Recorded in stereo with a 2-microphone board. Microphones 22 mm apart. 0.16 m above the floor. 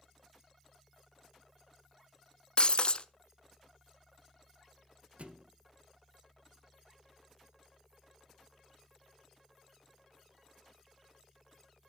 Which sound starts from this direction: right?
A thud, at 5.2 s.